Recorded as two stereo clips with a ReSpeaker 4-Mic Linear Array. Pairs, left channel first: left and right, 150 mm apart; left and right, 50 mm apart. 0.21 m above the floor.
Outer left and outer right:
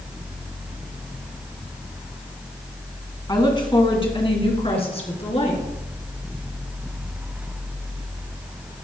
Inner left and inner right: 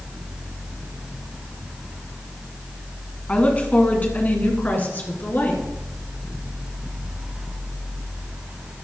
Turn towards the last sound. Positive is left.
turn(degrees=45)  # may be behind; listen again after turning